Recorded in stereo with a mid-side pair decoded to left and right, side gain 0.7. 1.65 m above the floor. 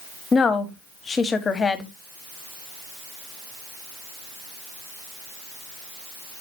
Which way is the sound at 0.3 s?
25° left.